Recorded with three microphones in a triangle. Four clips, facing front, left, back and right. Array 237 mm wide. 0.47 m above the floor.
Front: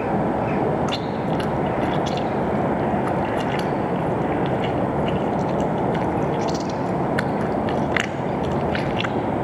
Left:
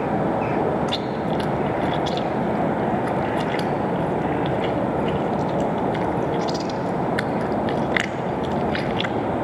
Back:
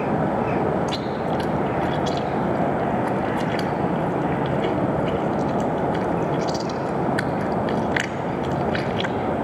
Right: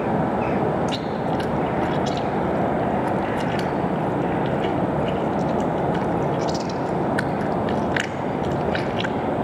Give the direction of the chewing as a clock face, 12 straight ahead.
11 o'clock.